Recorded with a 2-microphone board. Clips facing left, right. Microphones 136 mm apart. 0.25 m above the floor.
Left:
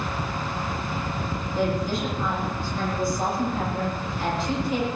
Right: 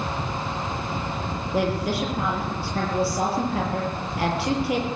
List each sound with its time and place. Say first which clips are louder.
1.5 s a woman speaking: right 1 dB; 75° right (ahead or behind), 7 m